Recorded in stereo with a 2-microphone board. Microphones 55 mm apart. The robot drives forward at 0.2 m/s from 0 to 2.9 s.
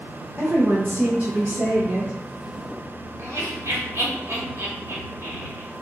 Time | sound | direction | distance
0.4 | a woman speaking | 45° right (ahead or behind) | 0.7 m
3.2 | laughter | 60° right (ahead or behind) | 1.5 m